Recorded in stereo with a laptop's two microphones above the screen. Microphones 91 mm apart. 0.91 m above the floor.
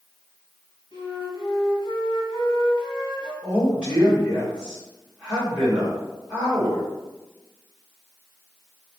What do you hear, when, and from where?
0.9 s a flute: 55° left (ahead or behind), 1.8 m
3.4 s a man speaking: 15° right (ahead or behind), 2.0 m